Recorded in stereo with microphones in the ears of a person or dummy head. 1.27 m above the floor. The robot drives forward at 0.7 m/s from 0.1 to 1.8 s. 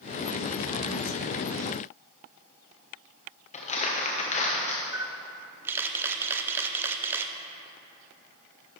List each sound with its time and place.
3.5 s crumpling: 35° left (ahead or behind), 1.0 m
4.9 s a camera shutter: 15° right (ahead or behind), 0.5 m